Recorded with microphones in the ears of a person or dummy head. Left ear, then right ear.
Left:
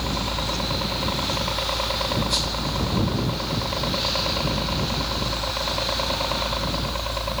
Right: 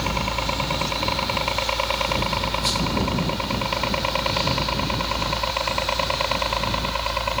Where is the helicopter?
70° right (ahead or behind); by 7.4 s 60° right (ahead or behind).